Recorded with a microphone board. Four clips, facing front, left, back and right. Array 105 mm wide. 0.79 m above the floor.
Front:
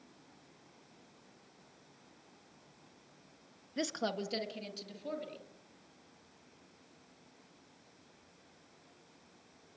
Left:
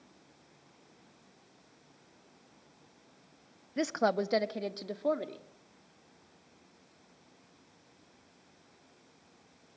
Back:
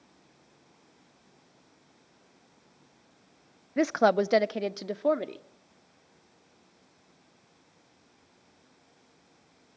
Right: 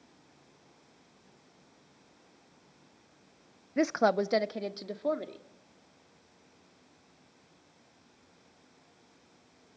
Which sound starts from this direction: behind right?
A woman speaking, at 3.8 s.